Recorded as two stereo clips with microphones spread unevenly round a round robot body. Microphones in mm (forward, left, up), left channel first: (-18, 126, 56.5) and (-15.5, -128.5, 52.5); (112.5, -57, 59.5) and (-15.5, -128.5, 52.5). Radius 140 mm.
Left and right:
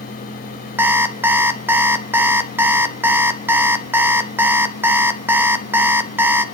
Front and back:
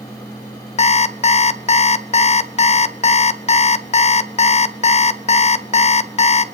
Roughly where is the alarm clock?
Ahead.